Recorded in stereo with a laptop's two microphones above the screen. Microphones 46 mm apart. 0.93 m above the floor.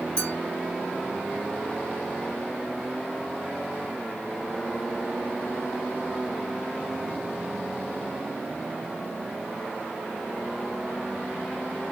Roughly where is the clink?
Right.